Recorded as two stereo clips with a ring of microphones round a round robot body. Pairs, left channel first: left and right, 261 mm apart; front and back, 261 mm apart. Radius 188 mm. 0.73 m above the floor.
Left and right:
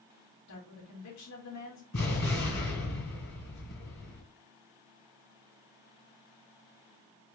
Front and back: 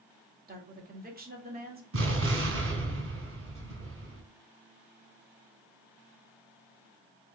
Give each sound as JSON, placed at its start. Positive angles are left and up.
{"t": 0.5, "sound": "a woman speaking", "azimuth_deg": 125, "distance_m": 1.7}
{"t": 1.9, "sound": "an explosion", "azimuth_deg": 145, "distance_m": 2.0}